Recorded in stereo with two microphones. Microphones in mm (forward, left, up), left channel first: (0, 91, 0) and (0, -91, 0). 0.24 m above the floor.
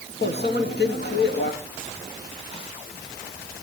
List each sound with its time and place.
0.2 s a microwave: 60° left (ahead or behind), 2.5 m